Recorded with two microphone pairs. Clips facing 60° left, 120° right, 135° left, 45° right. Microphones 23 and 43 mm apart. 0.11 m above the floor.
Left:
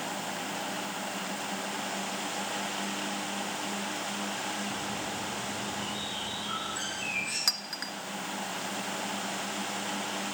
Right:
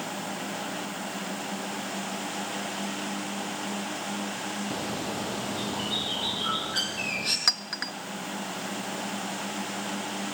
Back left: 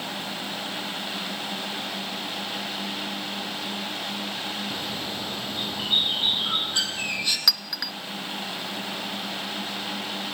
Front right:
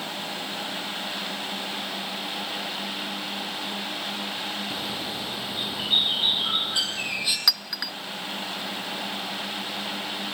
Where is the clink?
125° right, 0.7 m.